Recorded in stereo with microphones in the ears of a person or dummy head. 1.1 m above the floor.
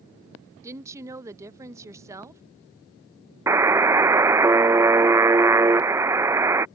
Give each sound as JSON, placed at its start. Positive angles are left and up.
{"t": 0.6, "sound": "a woman speaking", "side_deg": -20}
{"t": 3.5, "sound": "a buzzer", "side_deg": -10}